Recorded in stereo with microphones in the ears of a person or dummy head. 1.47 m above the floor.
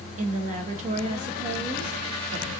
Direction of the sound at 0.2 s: 35° right (ahead or behind).